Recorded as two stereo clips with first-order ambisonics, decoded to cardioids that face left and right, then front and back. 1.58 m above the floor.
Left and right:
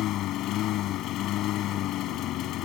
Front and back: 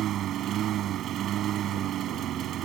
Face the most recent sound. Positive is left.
turn(degrees=130)